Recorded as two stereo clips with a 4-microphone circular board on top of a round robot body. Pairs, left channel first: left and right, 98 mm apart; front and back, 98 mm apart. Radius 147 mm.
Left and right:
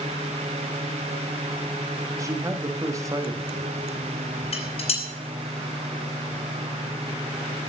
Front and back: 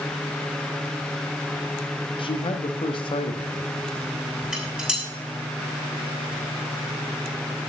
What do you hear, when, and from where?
2.2 s a man speaking: 35° right, 1.5 m
4.5 s dishes clattering: 100° left, 5 m